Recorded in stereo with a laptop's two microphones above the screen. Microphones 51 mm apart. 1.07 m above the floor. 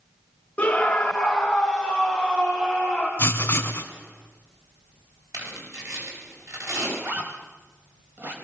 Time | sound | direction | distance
0.6 | a scream | 25° left (ahead or behind) | 1.9 m
3.2 | writing | 40° left (ahead or behind) | 2 m
5.3 | tearing paper | 85° right | 7.5 m
7.0 | a zipper | 45° right (ahead or behind) | 4.5 m